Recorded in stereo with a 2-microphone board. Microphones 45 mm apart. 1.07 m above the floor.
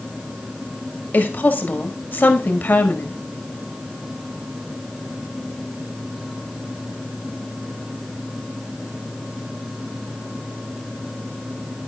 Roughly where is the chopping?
No chopping in this recording.